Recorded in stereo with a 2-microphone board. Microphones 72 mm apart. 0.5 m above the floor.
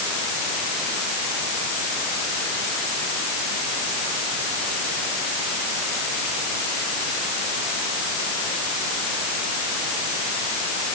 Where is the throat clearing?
I don't hear throat clearing.